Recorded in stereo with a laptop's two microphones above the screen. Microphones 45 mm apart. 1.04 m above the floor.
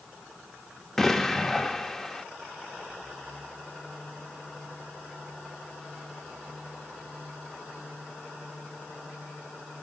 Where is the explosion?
5° left (ahead or behind), 0.8 m.